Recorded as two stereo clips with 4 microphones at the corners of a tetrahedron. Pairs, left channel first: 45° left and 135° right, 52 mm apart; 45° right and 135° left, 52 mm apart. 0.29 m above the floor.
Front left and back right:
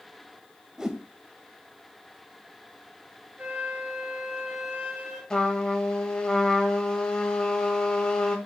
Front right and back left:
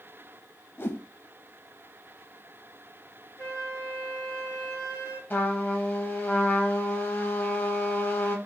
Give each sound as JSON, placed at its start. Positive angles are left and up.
{"t": 0.8, "sound": "a whoosh", "azimuth_deg": -60, "distance_m": 0.5}
{"t": 3.4, "sound": "a flute", "azimuth_deg": -75, "distance_m": 2.5}
{"t": 5.3, "sound": "a trumpet", "azimuth_deg": -25, "distance_m": 1.2}